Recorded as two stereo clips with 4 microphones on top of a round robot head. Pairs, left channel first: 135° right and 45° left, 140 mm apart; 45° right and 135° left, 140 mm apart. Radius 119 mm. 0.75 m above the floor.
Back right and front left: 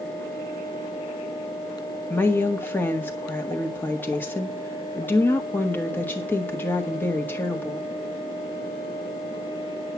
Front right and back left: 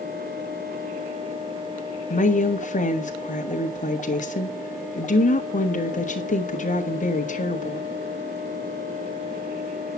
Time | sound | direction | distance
2.1 | a woman speaking | 60° right | 1.9 m